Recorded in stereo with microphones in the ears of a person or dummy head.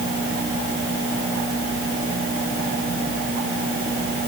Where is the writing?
I don't hear writing.